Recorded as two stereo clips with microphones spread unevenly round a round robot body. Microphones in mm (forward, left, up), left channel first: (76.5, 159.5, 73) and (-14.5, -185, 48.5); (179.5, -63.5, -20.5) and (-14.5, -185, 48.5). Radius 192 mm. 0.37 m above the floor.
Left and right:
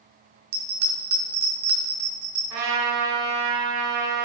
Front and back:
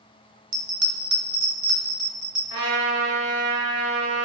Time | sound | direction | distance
0.5 | a bell | 140° right | 1.2 m
2.5 | a trumpet | 145° right | 3 m